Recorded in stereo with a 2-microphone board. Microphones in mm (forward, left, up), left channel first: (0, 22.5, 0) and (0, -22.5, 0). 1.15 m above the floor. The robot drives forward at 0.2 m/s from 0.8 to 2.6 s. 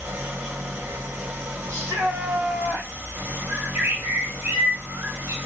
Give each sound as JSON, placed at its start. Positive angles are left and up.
{"t": 0.0, "sound": "an engine running", "side_deg": -70, "distance_m": 1.9}
{"t": 1.7, "sound": "a shout", "side_deg": -80, "distance_m": 1.4}
{"t": 3.5, "sound": "a bird", "side_deg": -90, "distance_m": 2.5}